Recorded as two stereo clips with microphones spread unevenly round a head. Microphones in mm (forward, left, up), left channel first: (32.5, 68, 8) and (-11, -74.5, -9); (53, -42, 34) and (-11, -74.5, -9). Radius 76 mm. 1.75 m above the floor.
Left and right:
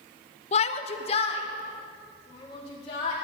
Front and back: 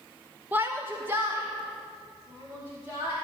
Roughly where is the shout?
Left.